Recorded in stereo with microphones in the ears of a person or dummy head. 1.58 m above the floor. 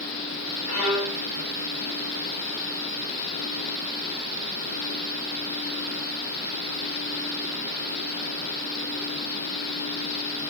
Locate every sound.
0.7 s a violin: 40° left (ahead or behind), 3.5 m